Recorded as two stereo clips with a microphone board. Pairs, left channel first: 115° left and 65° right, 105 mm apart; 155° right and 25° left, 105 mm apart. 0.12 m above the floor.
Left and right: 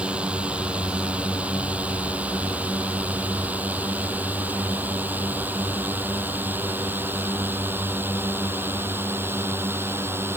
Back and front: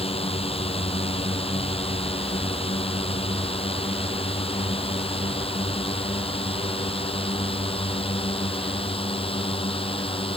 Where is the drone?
145° right; by 10.4 s 135° right.